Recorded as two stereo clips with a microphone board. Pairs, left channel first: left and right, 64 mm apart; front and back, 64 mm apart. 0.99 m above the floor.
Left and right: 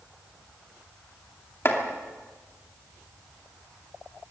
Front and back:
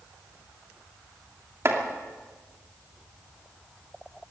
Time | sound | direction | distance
1.6 | chopping | 135° left | 2.5 m